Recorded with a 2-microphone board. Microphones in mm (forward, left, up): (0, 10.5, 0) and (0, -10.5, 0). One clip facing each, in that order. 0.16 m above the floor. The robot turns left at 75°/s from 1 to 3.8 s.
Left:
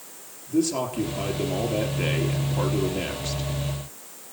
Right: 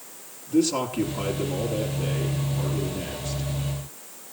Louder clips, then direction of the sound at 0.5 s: Right 1 dB; 165° right.